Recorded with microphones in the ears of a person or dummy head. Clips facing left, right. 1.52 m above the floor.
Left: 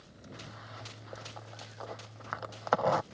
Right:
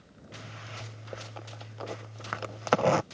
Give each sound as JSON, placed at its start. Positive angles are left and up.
{"t": 0.3, "sound": "a zipper", "side_deg": -35}